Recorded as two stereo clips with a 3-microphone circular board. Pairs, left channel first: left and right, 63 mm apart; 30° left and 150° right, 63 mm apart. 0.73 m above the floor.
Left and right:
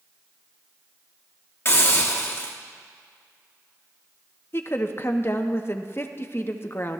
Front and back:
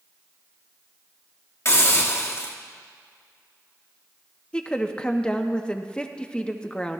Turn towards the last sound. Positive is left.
turn(degrees=95)